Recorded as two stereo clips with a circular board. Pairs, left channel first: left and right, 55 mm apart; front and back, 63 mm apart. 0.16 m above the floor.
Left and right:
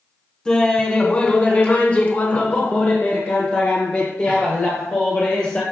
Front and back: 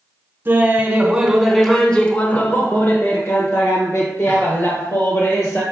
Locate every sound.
0.5 s laughter: 155° left, 1.3 m; by 5.6 s 20° left, 3.5 m